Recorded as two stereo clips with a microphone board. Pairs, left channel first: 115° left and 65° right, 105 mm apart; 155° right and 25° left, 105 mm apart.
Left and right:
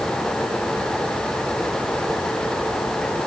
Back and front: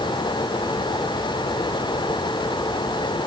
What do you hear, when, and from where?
Only background noise.